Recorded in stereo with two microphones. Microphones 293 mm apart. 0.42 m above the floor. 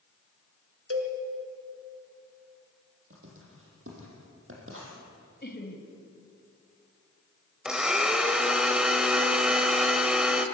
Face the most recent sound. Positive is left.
turn(degrees=0)  # may be behind; listen again after turning